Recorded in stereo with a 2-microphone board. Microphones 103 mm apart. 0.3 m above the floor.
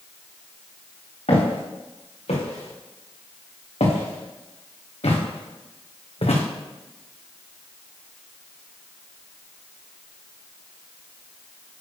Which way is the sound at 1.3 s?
80° left.